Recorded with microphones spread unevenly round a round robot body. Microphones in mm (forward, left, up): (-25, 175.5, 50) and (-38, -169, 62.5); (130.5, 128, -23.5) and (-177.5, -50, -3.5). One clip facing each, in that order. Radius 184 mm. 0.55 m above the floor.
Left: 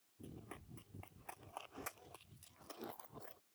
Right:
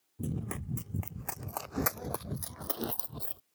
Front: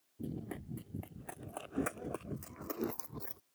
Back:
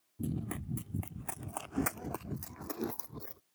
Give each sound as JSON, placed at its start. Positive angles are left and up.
{"t": 0.2, "sound": "running footsteps", "azimuth_deg": -85}